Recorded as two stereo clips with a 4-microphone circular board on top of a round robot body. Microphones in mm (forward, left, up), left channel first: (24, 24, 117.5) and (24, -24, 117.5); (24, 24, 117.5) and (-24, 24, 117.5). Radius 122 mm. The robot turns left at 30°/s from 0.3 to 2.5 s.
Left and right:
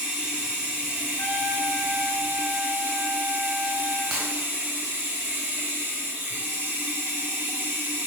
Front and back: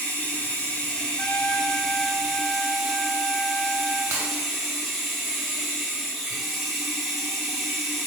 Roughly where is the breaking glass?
Behind.